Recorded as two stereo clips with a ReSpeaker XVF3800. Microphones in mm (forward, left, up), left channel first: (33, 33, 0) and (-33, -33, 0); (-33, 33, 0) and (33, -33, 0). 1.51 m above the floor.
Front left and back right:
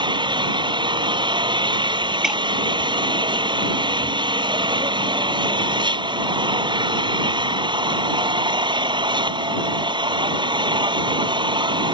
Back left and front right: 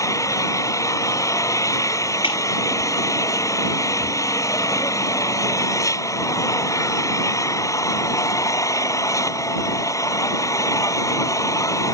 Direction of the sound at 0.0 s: 170° right.